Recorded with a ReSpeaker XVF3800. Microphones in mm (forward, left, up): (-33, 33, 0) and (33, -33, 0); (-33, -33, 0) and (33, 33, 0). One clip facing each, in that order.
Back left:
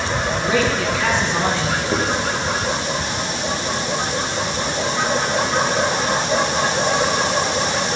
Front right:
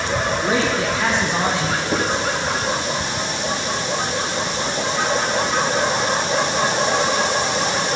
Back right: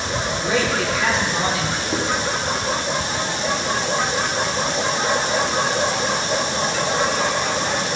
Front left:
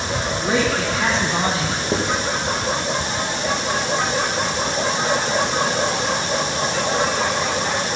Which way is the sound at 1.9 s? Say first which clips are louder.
Even, front left 2 dB; 50° left.